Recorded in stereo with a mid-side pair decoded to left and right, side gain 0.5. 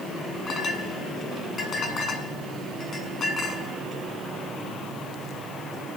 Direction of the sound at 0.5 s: 40° left.